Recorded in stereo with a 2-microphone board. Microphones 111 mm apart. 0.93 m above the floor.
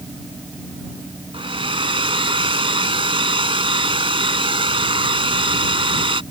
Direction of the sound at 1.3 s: 55° right (ahead or behind).